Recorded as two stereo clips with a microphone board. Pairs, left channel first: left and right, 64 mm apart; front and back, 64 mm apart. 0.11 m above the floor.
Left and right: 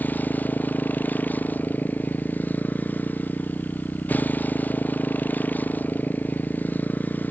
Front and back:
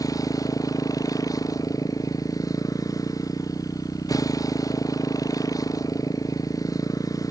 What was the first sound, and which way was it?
A motorcycle, 25° left.